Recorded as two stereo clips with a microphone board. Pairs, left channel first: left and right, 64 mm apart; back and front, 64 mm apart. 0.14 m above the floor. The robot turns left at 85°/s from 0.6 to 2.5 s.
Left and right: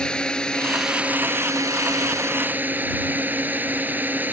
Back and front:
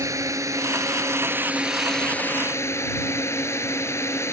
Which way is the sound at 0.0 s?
15° left.